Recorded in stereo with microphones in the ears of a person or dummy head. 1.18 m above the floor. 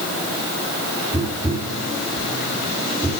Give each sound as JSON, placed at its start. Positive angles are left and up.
{"t": 1.1, "sound": "tapping", "side_deg": -20, "distance_m": 3.5}